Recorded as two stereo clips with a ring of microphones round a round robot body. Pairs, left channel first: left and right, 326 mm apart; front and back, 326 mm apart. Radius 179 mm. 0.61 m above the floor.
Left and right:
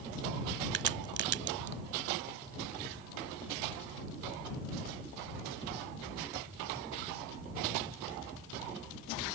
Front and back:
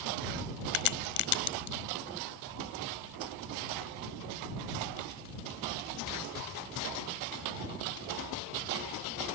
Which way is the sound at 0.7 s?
30° right.